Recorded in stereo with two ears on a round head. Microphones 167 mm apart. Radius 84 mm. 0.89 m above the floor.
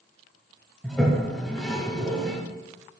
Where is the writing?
No writing in this recording.